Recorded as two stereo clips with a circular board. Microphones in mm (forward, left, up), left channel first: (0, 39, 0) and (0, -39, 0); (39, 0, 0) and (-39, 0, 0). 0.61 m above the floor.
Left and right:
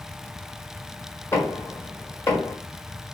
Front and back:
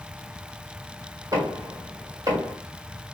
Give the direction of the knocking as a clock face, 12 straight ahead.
7 o'clock.